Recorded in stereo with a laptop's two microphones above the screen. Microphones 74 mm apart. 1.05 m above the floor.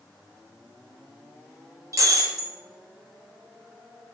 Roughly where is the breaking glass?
Right.